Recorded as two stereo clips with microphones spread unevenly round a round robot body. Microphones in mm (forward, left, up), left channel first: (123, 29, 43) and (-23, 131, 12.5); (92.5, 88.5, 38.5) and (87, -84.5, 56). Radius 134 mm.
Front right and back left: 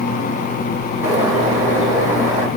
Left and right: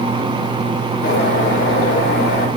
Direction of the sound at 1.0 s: 95° left.